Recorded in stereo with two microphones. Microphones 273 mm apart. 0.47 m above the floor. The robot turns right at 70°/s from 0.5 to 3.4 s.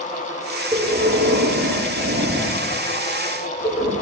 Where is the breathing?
165° right, 8.5 m; by 3.9 s 25° left, 8.5 m.